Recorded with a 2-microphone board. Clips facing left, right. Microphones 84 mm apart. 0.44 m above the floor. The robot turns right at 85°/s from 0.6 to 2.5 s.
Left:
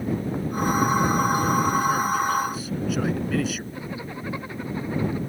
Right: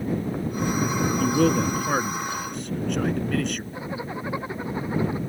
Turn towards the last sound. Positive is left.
turn(degrees=-20)  # may be behind; listen again after turning